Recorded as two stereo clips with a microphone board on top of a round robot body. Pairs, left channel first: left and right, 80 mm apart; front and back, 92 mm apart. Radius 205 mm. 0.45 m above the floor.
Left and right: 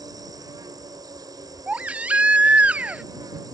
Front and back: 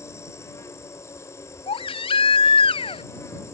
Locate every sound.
0.0 s an insect: 55° right
1.7 s a baby crying: 15° right